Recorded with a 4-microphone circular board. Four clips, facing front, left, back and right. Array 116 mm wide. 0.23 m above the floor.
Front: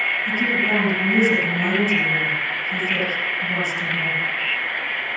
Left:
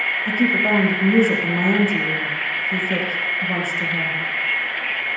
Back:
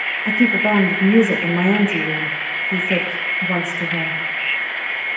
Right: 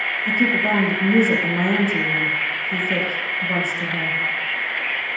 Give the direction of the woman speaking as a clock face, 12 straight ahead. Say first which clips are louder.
Left 1 dB, back 8 dB; 6 o'clock.